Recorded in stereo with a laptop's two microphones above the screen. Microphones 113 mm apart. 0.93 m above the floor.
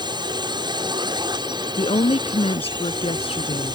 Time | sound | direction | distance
0.0 | a drone | 40° right (ahead or behind) | ?
1.8 | a woman speaking | 55° left (ahead or behind) | ?